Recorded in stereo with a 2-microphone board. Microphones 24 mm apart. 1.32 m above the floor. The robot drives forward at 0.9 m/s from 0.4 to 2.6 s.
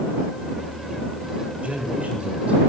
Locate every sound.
1.6 s a man speaking: 65° right (ahead or behind), 5 m; by 2.6 s 75° right (ahead or behind), 5 m